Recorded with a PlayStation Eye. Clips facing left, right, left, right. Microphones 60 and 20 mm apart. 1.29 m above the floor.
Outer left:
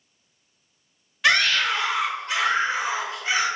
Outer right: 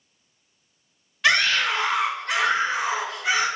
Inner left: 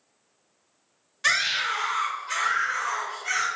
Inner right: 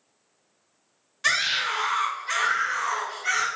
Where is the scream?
5° left (ahead or behind), 0.5 m; by 3.5 s 75° right (ahead or behind), 1.6 m.